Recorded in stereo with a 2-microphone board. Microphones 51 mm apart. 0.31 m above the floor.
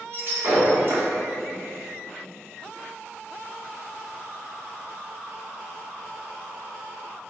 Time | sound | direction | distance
0.1 | breaking glass | 45° right (ahead or behind) | 1.5 m